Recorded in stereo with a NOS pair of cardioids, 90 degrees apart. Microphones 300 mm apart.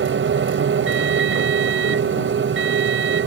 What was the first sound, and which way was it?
A machine running, 40° right.